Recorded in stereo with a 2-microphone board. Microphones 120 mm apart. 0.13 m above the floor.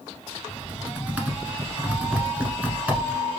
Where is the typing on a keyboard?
10° right (ahead or behind), 1.1 m.